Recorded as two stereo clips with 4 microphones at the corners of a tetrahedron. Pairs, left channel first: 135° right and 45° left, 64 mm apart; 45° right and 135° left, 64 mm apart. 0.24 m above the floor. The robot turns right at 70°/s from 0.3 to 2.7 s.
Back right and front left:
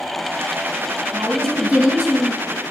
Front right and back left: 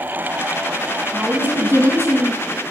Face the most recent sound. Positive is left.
turn(degrees=175)